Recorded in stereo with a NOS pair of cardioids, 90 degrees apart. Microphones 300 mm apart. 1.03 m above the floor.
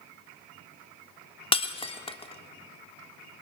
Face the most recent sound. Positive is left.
turn(degrees=20)